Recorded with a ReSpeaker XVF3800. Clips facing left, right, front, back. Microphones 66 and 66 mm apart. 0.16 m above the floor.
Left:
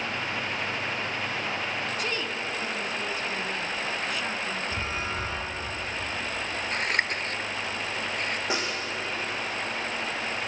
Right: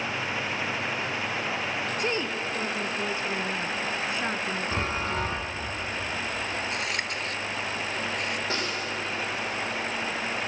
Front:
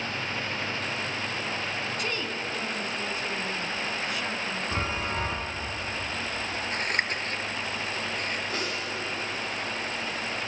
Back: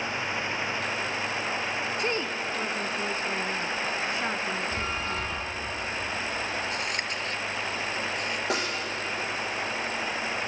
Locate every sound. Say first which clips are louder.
2.0 s a woman speaking: right 2 dB, back 3 dB; 135° right, 1.2 m
4.7 s a chime: right 3 dB, front 1 dB; 55° right, 6.5 m
6.7 s scissors: left 3 dB, front 2 dB; 45° left, 0.9 m
8.5 s a snare drum: left 1 dB, back 3 dB; 165° left, 6.5 m